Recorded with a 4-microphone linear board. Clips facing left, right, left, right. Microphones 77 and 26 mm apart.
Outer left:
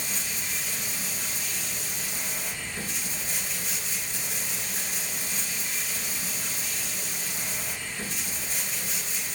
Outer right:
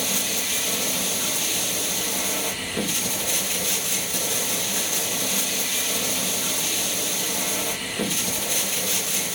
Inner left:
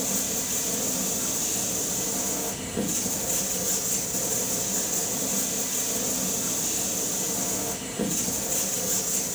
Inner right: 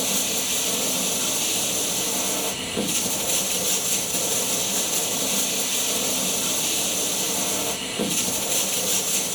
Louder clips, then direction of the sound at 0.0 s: Outer right 7 dB, inner right 4 dB; 85° right.